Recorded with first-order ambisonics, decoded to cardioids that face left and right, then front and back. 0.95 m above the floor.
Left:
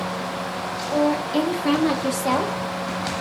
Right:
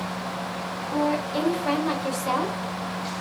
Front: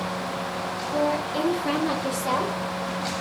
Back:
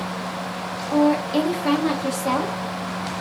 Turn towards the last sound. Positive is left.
turn(degrees=95)